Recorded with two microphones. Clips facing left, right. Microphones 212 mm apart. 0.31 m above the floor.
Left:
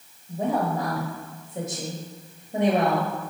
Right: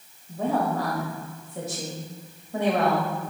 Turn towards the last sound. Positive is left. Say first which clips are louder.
# even
turn(degrees=20)  # may be behind; listen again after turning